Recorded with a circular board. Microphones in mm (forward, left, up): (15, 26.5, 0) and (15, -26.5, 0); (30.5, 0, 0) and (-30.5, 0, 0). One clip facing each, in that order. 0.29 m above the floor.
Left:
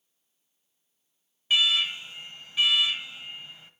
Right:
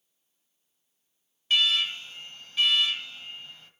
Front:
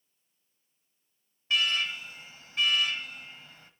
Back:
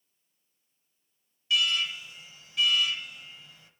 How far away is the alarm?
About 1.1 m.